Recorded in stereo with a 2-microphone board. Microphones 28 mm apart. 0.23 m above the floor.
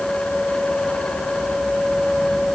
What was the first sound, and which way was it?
Only background noise.